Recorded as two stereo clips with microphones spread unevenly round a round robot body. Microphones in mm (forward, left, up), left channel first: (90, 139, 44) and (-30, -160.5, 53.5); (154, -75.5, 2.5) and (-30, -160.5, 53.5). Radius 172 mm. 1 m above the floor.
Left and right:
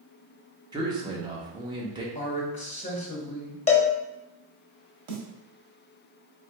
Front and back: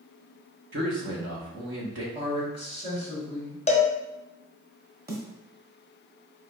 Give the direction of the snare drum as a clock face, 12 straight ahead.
4 o'clock.